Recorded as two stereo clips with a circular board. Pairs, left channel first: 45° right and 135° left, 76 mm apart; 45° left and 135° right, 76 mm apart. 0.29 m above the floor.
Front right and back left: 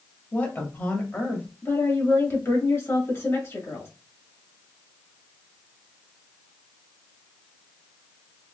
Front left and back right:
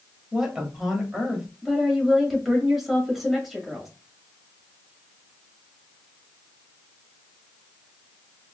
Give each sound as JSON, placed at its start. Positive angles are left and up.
{"t": 0.3, "sound": "a woman speaking", "azimuth_deg": -65, "distance_m": 1.1}
{"t": 1.6, "sound": "a woman speaking", "azimuth_deg": -50, "distance_m": 1.3}